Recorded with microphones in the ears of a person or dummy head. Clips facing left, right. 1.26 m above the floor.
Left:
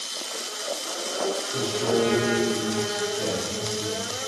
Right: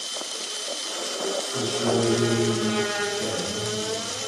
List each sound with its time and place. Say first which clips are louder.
1.5 s a man speaking: right 1 dB; 80° left, 1.9 m; by 4.1 s 30° left (ahead or behind), 1.2 m